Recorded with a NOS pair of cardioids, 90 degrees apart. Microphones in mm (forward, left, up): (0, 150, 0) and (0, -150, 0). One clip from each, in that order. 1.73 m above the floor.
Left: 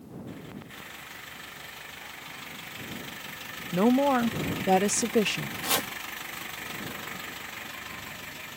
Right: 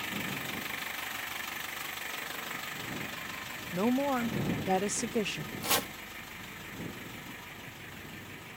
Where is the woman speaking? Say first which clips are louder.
Left 7 dB; 30° left.